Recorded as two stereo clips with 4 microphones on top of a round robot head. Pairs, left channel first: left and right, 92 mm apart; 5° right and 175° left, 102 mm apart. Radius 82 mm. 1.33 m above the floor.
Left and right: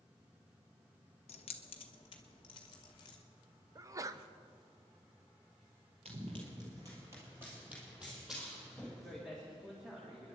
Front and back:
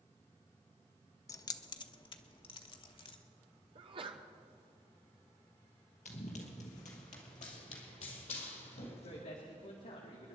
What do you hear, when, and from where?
1.3 s keys jangling: 55° left, 0.5 m; by 3.2 s 30° left, 1.6 m
3.8 s a sneeze: 145° right, 1.1 m
6.0 s running footsteps: 40° right, 2 m; by 9.2 s straight ahead, 4 m
9.0 s a man speaking: 5° right, 2 m